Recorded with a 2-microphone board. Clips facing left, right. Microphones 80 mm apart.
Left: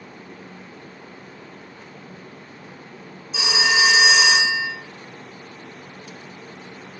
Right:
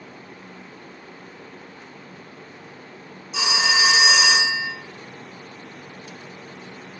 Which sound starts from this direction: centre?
A phone ringing, at 3.3 s.